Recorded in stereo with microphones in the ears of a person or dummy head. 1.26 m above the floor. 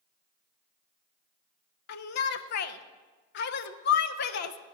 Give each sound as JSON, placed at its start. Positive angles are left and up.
{"t": 1.9, "sound": "a shout", "side_deg": 55, "distance_m": 0.5}